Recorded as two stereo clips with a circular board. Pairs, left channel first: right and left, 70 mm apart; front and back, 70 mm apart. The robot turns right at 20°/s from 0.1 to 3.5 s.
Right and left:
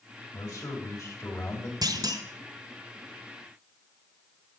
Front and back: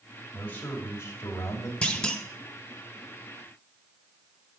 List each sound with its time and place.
0.3 s a man speaking: 65° right, 3 m; by 1.7 s 40° right, 3 m
1.8 s a clunk: 75° left, 1.1 m; by 2.2 s 85° left, 1.1 m